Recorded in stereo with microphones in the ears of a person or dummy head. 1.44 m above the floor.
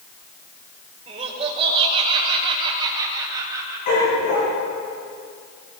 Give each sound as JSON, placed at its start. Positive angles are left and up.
{"t": 1.1, "sound": "laughter", "side_deg": -35, "distance_m": 5.0}
{"t": 3.9, "sound": "a dog barking", "side_deg": 50, "distance_m": 8.5}